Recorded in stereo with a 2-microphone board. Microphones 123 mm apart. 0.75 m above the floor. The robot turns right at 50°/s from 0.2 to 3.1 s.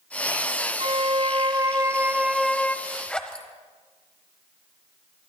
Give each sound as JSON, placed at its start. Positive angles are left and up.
{"t": 0.8, "sound": "a violin", "azimuth_deg": -80, "distance_m": 0.6}
{"t": 2.9, "sound": "a zipper", "side_deg": -5, "distance_m": 1.1}